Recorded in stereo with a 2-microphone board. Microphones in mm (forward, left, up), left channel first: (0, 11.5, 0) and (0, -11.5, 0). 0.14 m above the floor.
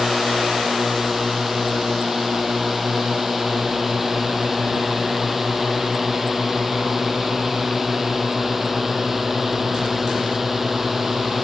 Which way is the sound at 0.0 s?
10° right (ahead or behind).